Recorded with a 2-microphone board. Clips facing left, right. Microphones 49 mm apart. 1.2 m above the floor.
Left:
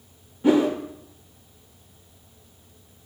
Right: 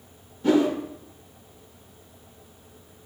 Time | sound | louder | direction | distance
0.4 | a whoosh | left 1 dB | 20° left (ahead or behind) | 0.8 m